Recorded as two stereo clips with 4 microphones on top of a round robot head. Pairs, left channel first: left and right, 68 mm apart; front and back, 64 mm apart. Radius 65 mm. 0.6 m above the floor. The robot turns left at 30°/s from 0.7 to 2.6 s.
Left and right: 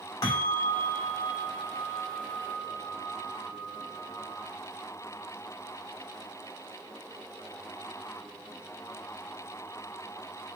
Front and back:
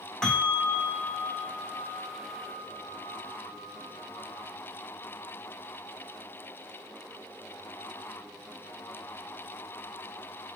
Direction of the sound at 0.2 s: 75° left.